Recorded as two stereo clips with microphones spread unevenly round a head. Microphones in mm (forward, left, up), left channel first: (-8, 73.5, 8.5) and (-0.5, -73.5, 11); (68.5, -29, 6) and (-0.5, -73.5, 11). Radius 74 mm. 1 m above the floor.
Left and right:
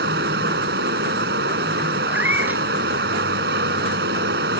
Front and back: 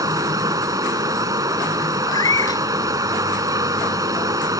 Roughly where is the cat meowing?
Ahead.